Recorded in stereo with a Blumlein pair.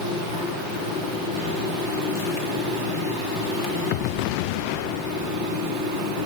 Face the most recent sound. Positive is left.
turn(degrees=35)